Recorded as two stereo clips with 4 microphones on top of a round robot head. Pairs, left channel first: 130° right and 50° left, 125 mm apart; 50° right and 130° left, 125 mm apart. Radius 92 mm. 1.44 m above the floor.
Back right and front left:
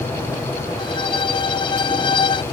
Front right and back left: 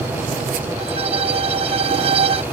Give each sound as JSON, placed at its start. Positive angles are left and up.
{"t": 0.8, "sound": "a violin", "azimuth_deg": 175}